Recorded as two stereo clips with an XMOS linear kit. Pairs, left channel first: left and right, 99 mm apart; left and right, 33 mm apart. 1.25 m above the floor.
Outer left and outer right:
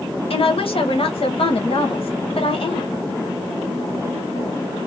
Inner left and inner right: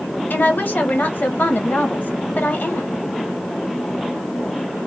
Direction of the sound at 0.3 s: 70° left (ahead or behind).